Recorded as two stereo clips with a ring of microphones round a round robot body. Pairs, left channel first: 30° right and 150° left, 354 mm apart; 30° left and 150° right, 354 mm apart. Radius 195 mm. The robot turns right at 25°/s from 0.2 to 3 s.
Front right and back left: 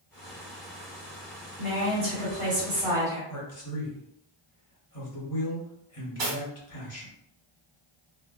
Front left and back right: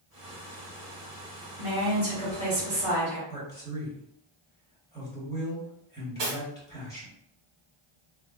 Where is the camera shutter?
No camera shutter in this recording.